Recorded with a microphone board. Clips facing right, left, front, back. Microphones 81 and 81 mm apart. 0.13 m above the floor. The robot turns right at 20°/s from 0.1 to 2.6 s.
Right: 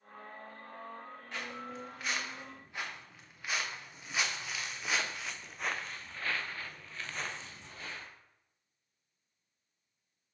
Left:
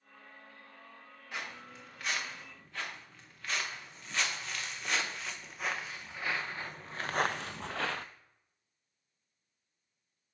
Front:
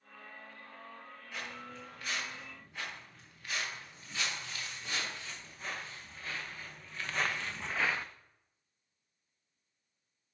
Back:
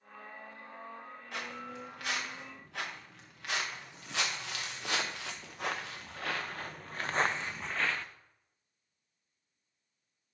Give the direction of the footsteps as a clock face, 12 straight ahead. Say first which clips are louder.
Right 1 dB, back 3 dB; 6 o'clock.